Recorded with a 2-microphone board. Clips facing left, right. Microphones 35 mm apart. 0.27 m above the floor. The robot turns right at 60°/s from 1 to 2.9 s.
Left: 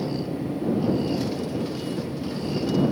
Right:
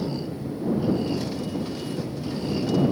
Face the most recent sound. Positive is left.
turn(degrees=-15)  # may be behind; listen again after turning